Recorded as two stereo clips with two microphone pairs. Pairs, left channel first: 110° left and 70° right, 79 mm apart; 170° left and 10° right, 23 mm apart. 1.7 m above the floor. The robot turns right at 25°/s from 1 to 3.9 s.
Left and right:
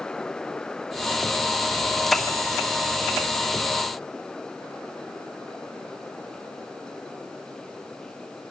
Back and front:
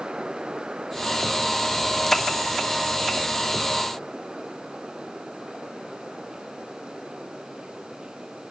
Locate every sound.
Only background noise.